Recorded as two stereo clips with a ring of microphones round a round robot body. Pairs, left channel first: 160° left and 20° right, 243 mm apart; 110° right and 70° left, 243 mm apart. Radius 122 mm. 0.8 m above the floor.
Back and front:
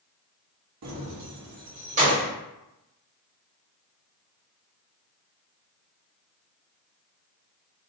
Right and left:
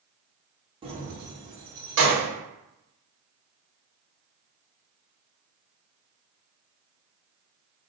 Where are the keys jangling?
Straight ahead, 0.6 m; by 2.3 s 45° left, 1.1 m.